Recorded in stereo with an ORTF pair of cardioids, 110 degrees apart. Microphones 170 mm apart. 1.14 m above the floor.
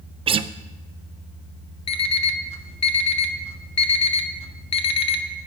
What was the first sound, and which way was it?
A guitar, 35° right.